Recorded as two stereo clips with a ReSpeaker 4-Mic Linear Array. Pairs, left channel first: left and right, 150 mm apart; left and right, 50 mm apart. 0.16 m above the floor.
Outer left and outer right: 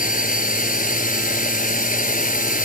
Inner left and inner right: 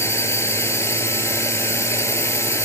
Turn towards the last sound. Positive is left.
turn(degrees=60)  # may be behind; listen again after turning